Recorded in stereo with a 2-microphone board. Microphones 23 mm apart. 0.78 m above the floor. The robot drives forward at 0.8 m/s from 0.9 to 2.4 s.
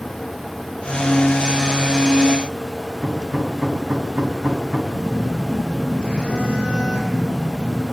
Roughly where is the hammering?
Right.